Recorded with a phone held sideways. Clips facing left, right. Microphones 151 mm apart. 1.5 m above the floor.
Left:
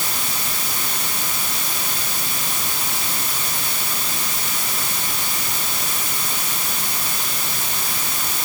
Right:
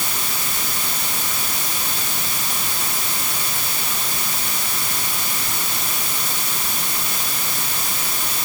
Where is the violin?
No violin in this recording.